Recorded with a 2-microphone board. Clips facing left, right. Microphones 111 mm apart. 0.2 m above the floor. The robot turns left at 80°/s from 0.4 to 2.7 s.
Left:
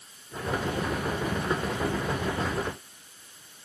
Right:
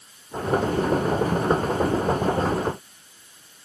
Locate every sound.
Only background noise.